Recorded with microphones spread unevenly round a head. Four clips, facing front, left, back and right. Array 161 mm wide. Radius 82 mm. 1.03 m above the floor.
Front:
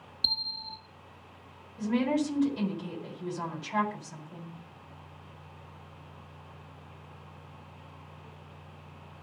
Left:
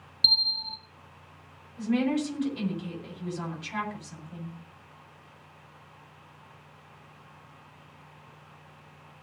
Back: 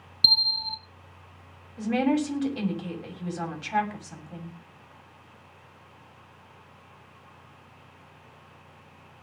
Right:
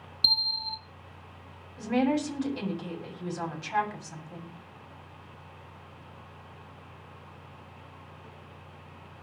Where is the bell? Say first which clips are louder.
Even, back 9 dB; 170° right, 1.0 m.